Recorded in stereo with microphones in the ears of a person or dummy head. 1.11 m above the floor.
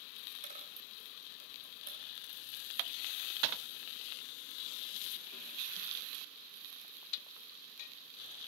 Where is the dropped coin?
45° right (ahead or behind), 2 m.